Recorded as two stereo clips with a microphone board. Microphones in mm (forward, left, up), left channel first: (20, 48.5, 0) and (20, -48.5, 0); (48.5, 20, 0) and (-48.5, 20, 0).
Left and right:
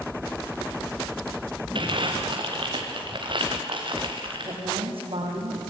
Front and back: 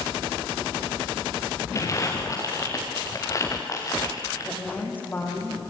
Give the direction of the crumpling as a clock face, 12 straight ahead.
2 o'clock.